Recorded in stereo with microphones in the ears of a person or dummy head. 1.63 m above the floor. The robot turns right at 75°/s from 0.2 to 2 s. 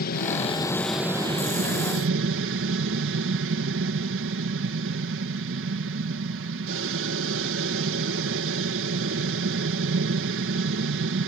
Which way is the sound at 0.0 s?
130° left.